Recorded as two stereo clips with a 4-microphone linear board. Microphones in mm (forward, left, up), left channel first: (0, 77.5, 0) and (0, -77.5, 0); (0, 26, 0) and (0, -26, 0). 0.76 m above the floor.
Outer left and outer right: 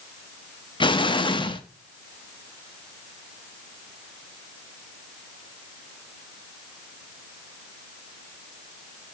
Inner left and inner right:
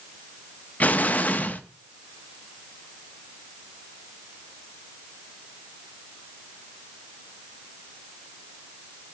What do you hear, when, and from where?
0.8 s an explosion: 30° left (ahead or behind), 0.6 m